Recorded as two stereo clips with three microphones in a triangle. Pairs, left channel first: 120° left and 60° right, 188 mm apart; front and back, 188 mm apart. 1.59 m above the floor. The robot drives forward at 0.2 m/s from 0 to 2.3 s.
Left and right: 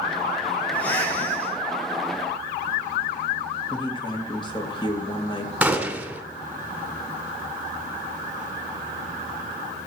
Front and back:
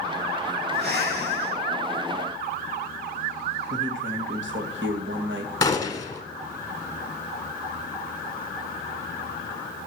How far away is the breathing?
About 3.5 m.